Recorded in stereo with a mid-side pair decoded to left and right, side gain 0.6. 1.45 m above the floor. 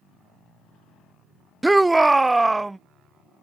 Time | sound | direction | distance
1.6 | a shout | 10° right | ?